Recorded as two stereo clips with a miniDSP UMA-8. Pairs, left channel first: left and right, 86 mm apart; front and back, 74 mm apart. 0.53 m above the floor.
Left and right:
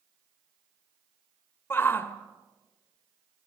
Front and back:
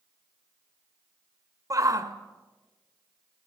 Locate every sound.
1.7 s a shout: 150° left, 1.7 m